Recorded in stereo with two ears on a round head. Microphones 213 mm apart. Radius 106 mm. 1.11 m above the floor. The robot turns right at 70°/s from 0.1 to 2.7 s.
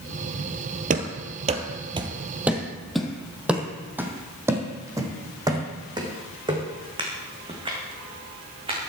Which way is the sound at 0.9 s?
35° right (ahead or behind).